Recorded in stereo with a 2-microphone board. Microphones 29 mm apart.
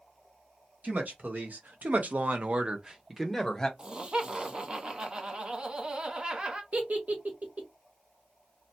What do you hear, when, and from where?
0.8 s a woman speaking: 70° right (ahead or behind), 1.3 m; by 3.7 s 15° left (ahead or behind), 0.8 m
3.8 s laughter: 30° right (ahead or behind), 0.7 m
6.7 s a giggle: 60° right (ahead or behind), 0.8 m